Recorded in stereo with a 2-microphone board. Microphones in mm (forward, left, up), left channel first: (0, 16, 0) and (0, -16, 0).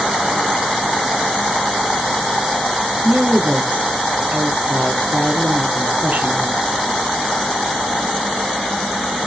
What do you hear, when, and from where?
3.0 s a woman speaking: 65° right (ahead or behind), 2.5 m